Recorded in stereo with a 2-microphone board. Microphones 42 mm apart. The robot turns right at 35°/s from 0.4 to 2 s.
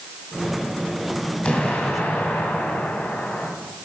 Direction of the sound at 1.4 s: 25° left (ahead or behind).